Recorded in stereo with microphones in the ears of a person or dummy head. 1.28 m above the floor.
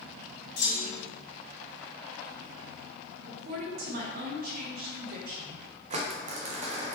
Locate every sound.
0.6 s a clunk: 70° left (ahead or behind), 1.8 m
3.2 s a woman speaking: 55° right (ahead or behind), 0.9 m
5.9 s crumpling: 40° right (ahead or behind), 0.6 m